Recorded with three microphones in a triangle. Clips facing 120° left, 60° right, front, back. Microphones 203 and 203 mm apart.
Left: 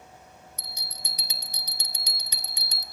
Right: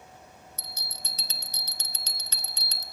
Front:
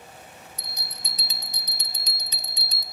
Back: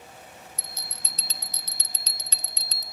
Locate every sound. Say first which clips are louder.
0.6 s a bell: even, front 1 dB; 60° left, 0.5 m